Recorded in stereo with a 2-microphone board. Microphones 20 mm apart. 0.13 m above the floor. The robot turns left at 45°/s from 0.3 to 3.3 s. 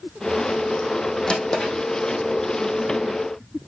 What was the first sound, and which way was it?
A drawer, 65° left (ahead or behind).